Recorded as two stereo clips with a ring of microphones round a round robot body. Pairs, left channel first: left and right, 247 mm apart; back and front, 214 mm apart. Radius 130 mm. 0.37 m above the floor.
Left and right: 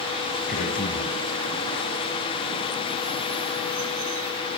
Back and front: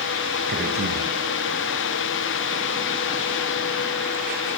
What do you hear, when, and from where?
0.5 s a man speaking: 35° left, 4 m